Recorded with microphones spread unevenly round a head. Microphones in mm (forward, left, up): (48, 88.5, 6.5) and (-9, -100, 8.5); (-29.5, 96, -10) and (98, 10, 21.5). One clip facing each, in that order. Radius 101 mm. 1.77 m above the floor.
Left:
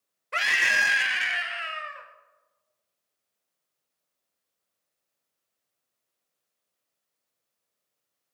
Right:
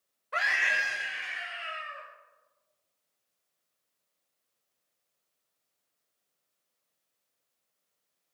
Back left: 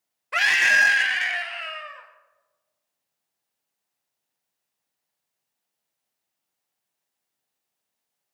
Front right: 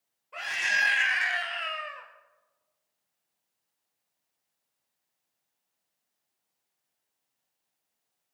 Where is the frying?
No frying in this recording.